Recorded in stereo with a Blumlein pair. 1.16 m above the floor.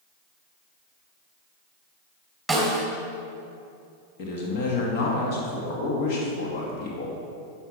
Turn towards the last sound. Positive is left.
turn(degrees=50)